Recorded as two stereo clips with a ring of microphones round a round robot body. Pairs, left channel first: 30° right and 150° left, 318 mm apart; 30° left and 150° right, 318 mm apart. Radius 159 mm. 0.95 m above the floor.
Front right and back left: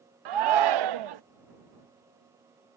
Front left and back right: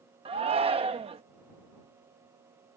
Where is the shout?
135° left.